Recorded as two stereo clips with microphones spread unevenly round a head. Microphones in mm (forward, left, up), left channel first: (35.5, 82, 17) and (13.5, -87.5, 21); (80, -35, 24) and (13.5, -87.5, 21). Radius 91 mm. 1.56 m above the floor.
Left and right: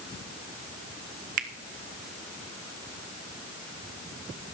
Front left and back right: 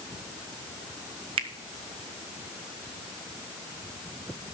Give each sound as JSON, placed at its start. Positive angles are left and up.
{"t": 1.4, "sound": "a finger snap", "azimuth_deg": -145, "distance_m": 0.7}